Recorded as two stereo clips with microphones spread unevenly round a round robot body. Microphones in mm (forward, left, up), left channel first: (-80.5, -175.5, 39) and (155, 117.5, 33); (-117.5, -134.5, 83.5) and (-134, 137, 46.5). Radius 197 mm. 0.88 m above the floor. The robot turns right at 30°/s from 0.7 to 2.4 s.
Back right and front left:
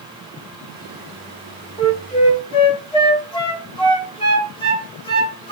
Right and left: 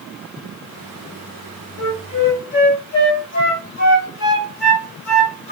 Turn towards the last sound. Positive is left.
turn(degrees=-55)